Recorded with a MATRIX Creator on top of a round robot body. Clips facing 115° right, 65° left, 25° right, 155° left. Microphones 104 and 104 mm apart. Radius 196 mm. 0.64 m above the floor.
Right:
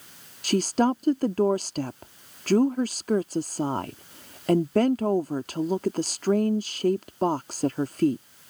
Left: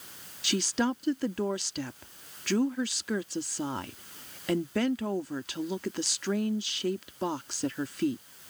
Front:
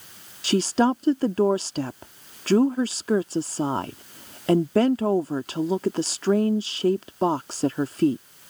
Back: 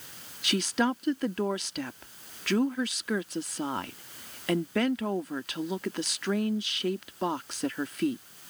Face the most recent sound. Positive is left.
turn(degrees=-75)